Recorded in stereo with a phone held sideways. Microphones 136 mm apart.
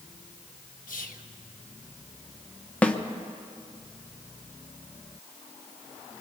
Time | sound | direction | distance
0.9 | whispering | 75° left (ahead or behind) | 1.3 m
2.8 | a snare drum | 10° left (ahead or behind) | 0.8 m